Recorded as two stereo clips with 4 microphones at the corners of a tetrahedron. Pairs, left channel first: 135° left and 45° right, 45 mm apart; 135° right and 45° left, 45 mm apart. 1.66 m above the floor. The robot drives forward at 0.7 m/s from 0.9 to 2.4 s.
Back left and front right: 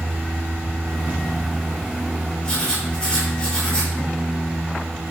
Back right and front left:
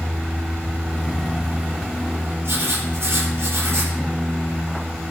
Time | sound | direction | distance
2.4 | writing | 70° left | 4.5 m